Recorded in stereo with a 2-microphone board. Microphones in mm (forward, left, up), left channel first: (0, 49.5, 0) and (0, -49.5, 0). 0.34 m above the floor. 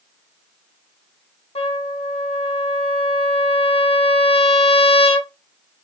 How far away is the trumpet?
About 0.6 m.